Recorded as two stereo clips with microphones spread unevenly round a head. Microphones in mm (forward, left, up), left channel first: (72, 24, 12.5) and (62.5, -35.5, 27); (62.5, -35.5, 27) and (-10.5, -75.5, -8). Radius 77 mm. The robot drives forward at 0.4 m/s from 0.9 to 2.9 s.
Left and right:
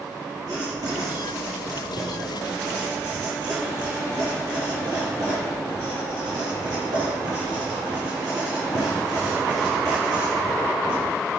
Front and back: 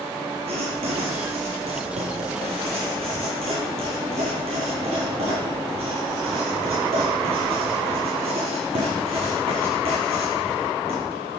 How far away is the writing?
About 8.5 m.